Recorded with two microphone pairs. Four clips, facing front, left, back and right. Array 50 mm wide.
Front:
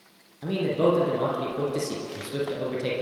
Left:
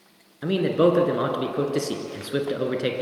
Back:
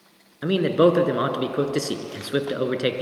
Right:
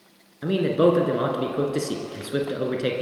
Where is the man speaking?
175° left, 2.5 m.